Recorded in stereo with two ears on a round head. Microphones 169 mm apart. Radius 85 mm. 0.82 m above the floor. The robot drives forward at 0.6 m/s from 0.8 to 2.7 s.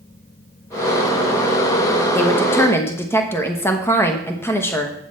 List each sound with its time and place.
2.1 s a woman speaking: 10° left (ahead or behind), 1.1 m; by 5.0 s 15° left (ahead or behind), 1.0 m